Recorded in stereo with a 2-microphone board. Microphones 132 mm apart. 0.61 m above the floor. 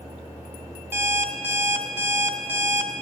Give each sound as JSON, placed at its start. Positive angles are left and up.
{"t": 0.9, "sound": "an alarm clock", "side_deg": -20, "distance_m": 0.8}